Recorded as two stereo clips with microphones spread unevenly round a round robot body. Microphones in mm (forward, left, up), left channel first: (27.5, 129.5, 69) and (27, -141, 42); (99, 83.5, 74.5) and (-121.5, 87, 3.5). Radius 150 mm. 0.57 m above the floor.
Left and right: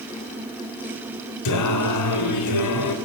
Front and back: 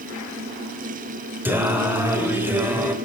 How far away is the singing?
About 3 m.